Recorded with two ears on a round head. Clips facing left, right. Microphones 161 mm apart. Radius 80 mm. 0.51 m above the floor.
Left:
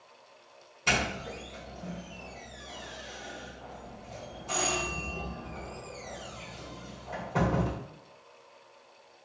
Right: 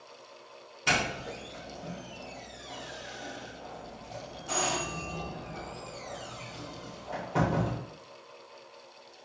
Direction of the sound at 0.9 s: 5° right (ahead or behind).